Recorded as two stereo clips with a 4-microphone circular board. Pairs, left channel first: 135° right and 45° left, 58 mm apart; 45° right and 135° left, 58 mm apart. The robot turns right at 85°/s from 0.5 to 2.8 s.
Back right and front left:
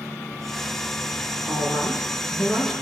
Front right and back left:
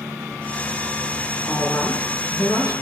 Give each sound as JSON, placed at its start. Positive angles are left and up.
{"t": 1.5, "sound": "a woman speaking", "azimuth_deg": -150, "distance_m": 7.0}